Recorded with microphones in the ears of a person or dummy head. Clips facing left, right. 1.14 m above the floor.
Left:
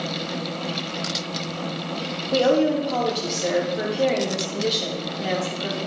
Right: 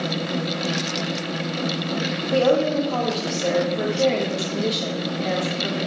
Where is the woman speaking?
10° left (ahead or behind), 2.5 m.